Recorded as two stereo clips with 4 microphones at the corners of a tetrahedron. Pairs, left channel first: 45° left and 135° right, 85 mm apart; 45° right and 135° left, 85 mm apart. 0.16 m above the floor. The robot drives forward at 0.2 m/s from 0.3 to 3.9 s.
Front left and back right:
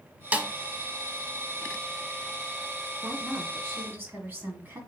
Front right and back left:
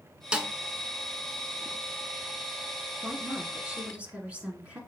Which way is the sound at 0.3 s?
170° right.